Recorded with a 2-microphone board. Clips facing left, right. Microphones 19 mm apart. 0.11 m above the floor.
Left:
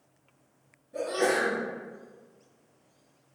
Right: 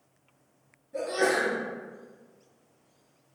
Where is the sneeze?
15° right (ahead or behind), 1.9 m.